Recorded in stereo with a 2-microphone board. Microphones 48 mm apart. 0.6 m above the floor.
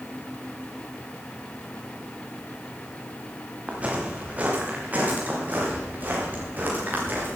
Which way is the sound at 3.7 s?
25° right (ahead or behind).